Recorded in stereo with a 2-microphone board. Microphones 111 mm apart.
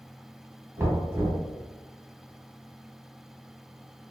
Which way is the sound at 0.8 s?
20° right (ahead or behind).